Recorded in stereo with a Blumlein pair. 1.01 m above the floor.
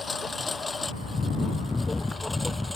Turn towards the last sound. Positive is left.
turn(degrees=5)